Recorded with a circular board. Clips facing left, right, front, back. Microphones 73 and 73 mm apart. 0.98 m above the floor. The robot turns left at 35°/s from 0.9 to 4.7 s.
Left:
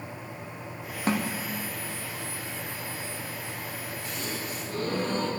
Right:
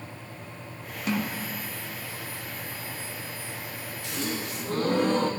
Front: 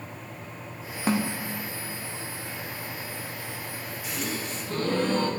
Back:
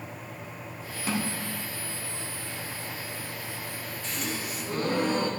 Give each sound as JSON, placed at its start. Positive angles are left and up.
{"t": 1.1, "sound": "a snare drum", "azimuth_deg": 45, "distance_m": 0.8}
{"t": 4.0, "sound": "a gasp", "azimuth_deg": -80, "distance_m": 0.9}